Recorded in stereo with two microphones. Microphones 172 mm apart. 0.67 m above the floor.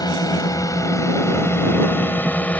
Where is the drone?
20° left (ahead or behind); by 2.6 s 5° left (ahead or behind).